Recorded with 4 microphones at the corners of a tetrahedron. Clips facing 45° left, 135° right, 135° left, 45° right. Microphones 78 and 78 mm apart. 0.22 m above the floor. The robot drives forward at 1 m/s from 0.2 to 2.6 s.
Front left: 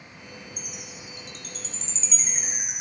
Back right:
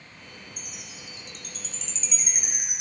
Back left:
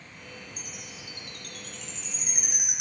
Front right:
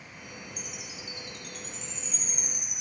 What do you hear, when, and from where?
0.6 s a chime: 80° left, 3 m; by 2.8 s 115° left, 3.5 m